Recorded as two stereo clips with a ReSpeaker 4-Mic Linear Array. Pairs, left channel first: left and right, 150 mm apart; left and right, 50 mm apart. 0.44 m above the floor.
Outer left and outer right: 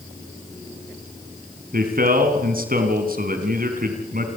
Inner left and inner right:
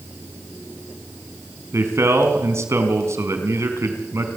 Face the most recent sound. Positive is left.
turn(degrees=-75)  # may be behind; listen again after turning